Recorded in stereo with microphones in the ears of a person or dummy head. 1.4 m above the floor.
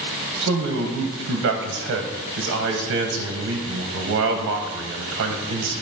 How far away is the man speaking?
About 1.0 m.